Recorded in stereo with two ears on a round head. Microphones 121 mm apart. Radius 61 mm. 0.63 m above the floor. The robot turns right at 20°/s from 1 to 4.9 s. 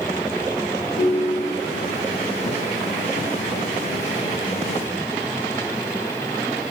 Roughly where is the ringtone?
Left.